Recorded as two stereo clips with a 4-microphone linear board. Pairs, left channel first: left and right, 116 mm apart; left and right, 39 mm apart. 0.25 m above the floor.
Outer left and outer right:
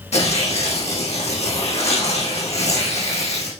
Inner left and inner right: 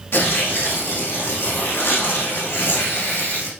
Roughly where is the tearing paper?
Left.